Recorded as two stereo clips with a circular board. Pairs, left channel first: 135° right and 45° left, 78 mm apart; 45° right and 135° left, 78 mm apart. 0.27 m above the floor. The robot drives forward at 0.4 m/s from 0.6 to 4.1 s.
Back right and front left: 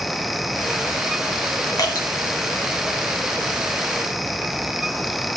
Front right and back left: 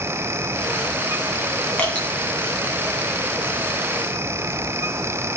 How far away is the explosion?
No explosion in this recording.